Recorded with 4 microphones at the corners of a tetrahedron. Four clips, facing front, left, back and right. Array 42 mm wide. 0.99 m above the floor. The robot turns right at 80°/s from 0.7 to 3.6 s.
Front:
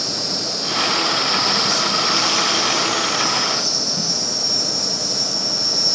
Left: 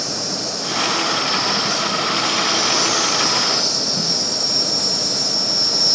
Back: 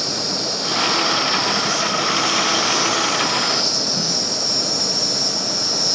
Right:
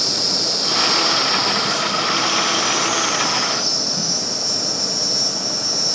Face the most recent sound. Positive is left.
turn(degrees=135)